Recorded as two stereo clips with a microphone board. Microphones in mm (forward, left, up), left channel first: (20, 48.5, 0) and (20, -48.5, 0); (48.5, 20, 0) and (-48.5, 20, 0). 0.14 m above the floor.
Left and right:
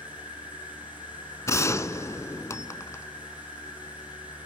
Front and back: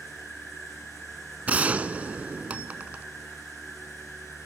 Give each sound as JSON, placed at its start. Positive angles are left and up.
{"t": 0.0, "sound": "an insect", "azimuth_deg": 85, "distance_m": 4.0}
{"t": 1.5, "sound": "a gunshot", "azimuth_deg": 115, "distance_m": 0.8}